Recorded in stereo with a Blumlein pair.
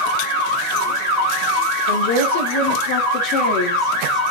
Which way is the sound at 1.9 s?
60° left.